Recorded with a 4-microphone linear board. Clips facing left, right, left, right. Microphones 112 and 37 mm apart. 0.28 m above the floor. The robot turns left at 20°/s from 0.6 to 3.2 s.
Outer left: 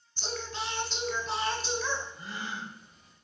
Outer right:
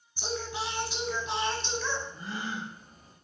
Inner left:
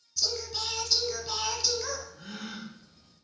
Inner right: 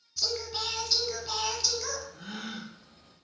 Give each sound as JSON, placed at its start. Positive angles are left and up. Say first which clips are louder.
{"t": 0.2, "sound": "singing", "louder": "outer right 3 dB, inner right 1 dB", "side_deg": -15, "distance_m": 1.6}
{"t": 2.1, "sound": "a gasp", "louder": "outer right 3 dB, inner right 1 dB", "side_deg": -45, "distance_m": 3.0}